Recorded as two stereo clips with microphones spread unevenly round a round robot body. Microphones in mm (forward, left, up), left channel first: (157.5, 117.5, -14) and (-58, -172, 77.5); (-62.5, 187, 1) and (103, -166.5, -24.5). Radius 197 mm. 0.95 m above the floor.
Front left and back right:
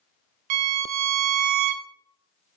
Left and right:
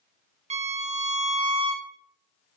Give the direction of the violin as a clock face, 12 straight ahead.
5 o'clock.